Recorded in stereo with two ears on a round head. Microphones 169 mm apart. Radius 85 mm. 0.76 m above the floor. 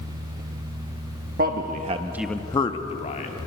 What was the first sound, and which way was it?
A man speaking, 50° right (ahead or behind).